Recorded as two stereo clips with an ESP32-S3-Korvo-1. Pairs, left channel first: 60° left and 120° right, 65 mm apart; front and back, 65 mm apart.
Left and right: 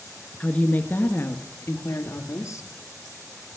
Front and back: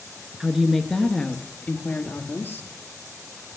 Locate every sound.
0.4 s a woman speaking: 105° left, 1.2 m; by 2.7 s 50° left, 1.8 m